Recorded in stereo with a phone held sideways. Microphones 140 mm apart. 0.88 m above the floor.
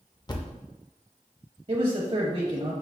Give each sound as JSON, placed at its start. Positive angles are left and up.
{"t": 0.3, "sound": "a thud", "side_deg": 30, "distance_m": 0.6}
{"t": 1.7, "sound": "a man speaking", "side_deg": -50, "distance_m": 0.9}